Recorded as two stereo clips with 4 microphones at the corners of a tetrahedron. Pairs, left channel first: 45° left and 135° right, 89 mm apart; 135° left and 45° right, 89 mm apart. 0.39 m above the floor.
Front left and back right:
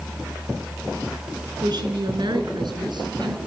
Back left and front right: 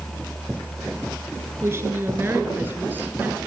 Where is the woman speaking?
105° right, 4.5 m; by 3.4 s 115° right, 4 m.